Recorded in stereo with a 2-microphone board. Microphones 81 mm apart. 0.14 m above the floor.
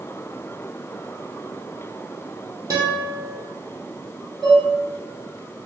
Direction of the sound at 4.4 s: Centre (ahead or behind).